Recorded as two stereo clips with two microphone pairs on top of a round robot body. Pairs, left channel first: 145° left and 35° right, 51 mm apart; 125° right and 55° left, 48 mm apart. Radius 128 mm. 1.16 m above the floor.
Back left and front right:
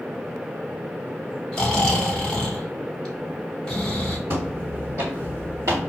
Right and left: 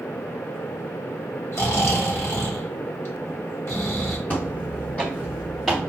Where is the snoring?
145° right, 1.3 m.